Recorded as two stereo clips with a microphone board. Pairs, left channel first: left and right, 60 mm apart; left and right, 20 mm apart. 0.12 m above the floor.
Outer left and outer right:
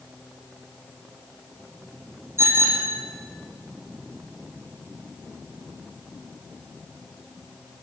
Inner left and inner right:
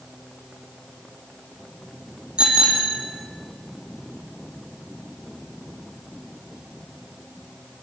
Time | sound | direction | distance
2.4 | a bicycle bell | 45° right (ahead or behind) | 4 m